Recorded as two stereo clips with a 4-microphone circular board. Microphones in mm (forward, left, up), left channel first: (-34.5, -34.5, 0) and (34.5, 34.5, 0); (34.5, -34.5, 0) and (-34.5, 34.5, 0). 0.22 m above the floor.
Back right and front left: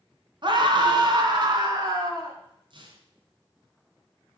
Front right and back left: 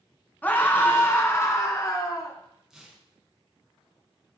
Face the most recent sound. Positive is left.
turn(degrees=50)